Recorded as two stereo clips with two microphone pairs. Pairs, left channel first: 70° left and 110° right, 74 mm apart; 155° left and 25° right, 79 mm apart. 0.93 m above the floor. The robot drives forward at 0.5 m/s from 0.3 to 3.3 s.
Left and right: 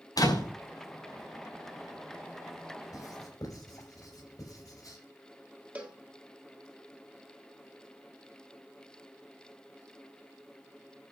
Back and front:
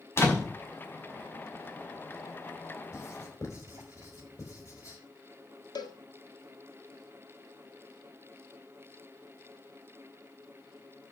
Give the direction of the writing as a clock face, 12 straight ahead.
8 o'clock.